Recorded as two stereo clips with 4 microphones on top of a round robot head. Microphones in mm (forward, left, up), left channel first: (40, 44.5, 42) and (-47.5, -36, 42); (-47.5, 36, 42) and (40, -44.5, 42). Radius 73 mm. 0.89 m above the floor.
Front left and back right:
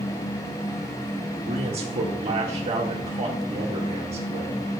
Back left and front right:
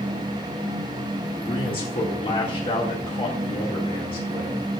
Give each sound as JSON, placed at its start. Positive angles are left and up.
{"t": 1.5, "sound": "a man speaking", "azimuth_deg": -175, "distance_m": 1.9}